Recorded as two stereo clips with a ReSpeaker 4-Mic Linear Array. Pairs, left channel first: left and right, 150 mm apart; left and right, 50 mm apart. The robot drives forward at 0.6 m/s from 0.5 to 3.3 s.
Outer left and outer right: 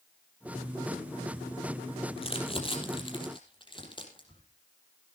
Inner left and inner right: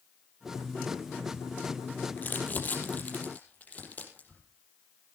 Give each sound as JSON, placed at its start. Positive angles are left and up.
{"t": 2.2, "sound": "crumpling", "side_deg": 40, "distance_m": 4.0}